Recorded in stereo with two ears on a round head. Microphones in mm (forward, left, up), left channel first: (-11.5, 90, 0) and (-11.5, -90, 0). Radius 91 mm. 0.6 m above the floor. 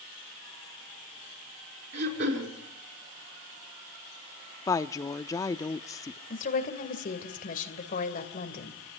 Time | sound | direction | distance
1.9 | throat clearing | 60° right (ahead or behind) | 5 m
4.7 | a woman speaking | 15° left (ahead or behind) | 0.7 m
6.3 | a woman speaking | 40° left (ahead or behind) | 3 m